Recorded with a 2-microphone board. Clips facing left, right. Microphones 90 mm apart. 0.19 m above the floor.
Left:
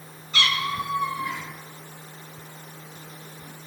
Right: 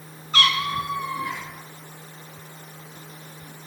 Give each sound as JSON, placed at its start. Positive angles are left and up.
{"t": 0.3, "sound": "a cat meowing", "side_deg": -45, "distance_m": 1.4}